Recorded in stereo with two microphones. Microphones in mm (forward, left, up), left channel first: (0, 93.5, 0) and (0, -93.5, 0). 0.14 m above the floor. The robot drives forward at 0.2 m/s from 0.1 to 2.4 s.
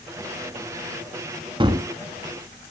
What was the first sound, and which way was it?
A gunshot, 25° right (ahead or behind).